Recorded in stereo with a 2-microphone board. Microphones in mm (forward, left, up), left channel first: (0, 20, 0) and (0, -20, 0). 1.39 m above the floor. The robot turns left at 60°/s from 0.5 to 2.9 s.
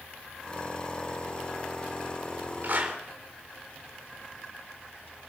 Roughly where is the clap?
Right.